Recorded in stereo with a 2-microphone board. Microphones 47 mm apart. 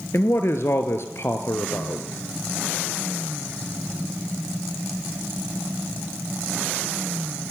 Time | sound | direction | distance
0.1 | a man speaking | 65° left (ahead or behind) | 2.5 m